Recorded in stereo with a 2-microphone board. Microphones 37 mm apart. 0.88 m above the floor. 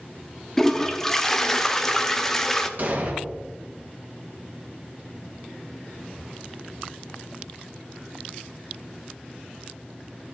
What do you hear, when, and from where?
0.6 s a toilet flushing: 10° left (ahead or behind), 0.6 m
2.8 s an explosion: 50° right (ahead or behind), 1.3 m